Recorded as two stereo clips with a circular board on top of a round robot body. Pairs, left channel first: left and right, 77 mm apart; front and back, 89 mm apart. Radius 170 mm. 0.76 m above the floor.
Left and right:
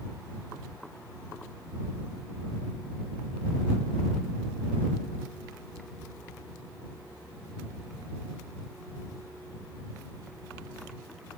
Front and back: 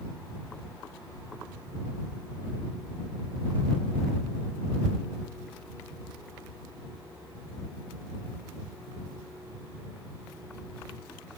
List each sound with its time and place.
Only background noise.